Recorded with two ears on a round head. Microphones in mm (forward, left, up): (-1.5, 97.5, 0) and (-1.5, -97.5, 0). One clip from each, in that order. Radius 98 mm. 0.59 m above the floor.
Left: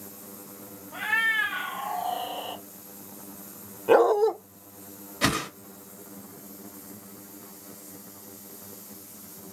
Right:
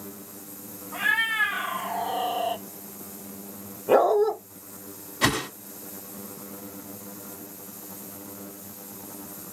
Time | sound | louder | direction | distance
0.9 | a cat meowing | right 1 dB | 5° left (ahead or behind) | 2 m
3.9 | a dog barking | even | 65° left (ahead or behind) | 0.7 m
5.2 | a whoosh | right 2 dB | 10° left (ahead or behind) | 1.1 m